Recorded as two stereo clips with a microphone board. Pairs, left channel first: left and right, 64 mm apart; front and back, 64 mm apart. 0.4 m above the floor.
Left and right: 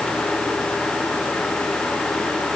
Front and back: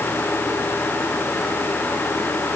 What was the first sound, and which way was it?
Only background noise.